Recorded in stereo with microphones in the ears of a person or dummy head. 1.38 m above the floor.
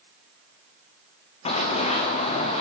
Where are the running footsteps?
40° left (ahead or behind), 4 m; by 2.6 s 35° left (ahead or behind), 5 m.